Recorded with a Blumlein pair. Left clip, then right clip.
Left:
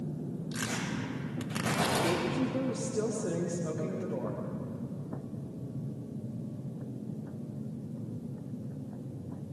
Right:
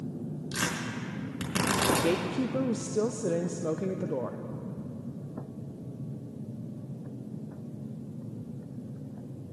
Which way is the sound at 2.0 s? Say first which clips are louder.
Right 2 dB; 70° right.